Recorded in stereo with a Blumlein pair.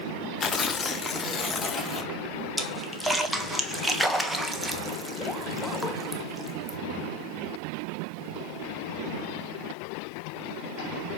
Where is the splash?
Straight ahead, 1.1 m.